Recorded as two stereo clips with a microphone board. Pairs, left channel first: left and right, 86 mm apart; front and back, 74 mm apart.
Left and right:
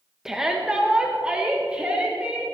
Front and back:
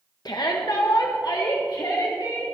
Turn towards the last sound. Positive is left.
turn(degrees=-15)